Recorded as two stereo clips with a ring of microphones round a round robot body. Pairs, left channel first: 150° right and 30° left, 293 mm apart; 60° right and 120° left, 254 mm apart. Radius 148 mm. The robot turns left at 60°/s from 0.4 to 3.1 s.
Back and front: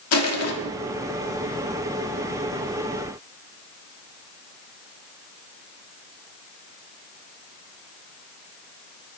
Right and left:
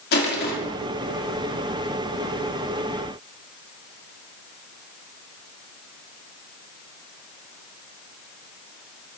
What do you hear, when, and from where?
0.1 s crushing: 115° right, 2 m; by 0.5 s 120° right, 2 m